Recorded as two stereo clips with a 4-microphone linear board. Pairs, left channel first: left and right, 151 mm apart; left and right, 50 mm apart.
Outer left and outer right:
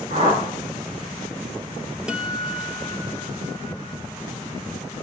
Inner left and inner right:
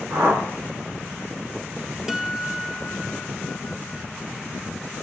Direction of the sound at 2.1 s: 5° right (ahead or behind).